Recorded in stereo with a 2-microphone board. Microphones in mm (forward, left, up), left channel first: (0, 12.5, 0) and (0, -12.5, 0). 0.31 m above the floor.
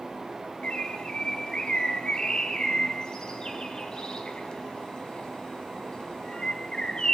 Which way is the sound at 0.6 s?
35° left (ahead or behind).